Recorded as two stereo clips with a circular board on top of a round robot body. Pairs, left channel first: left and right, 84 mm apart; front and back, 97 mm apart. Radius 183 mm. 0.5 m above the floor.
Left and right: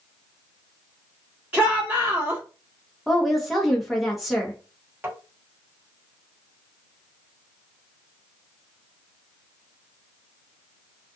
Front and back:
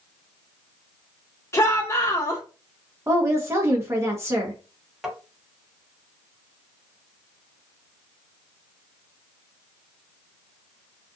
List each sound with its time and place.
1.5 s a shout: 30° right, 1.5 m
3.1 s a woman speaking: straight behind, 1.1 m
5.0 s tapping: 95° right, 1.3 m